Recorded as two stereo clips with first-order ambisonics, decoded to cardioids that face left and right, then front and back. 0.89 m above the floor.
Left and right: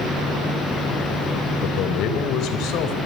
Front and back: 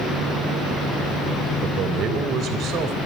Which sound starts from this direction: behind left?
A man speaking, at 1.6 s.